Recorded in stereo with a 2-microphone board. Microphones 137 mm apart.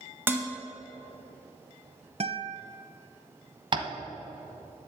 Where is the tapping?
35° right (ahead or behind), 0.9 m.